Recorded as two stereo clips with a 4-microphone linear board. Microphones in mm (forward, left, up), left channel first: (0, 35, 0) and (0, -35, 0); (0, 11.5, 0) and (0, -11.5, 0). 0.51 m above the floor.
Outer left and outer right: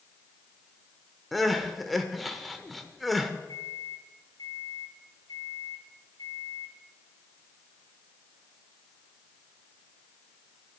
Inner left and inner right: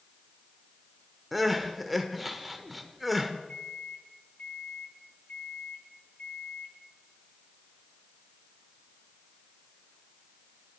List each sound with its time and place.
1.3 s crying: centre (ahead or behind), 1.0 m
3.5 s a microwave: 70° left (ahead or behind), 3.5 m